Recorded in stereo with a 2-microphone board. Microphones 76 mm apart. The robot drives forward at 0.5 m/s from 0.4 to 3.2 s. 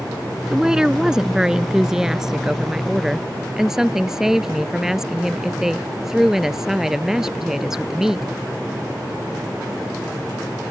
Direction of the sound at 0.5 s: 10° right (ahead or behind).